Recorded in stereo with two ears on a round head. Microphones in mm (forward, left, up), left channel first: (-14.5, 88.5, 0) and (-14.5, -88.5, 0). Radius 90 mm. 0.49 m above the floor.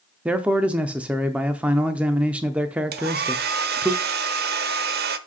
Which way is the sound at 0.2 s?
5° right (ahead or behind).